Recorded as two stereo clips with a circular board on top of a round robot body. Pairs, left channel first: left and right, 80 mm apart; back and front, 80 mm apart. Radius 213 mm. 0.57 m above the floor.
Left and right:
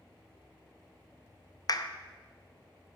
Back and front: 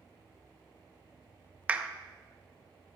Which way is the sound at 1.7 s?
75° left.